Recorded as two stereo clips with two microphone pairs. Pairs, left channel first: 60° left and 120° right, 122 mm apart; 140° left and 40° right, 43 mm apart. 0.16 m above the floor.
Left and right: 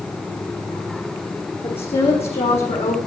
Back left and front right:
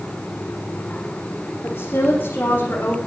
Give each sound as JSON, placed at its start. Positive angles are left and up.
{"t": 1.6, "sound": "a woman speaking", "azimuth_deg": 95, "distance_m": 7.5}